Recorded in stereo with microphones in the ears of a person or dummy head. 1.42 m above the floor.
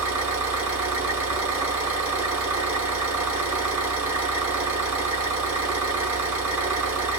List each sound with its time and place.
0.0 s an engine running: 10° right (ahead or behind), 1.2 m